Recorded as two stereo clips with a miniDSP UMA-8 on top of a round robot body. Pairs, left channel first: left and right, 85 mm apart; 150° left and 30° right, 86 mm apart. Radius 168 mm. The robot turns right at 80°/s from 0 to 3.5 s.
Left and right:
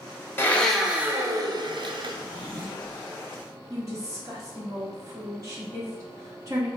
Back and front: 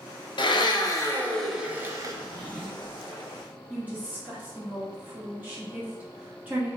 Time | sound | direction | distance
0.4 | a blender | 150° left | 0.7 m
2.1 | a drawer | 105° left | 1.3 m
3.7 | a woman speaking | 90° right | 1.2 m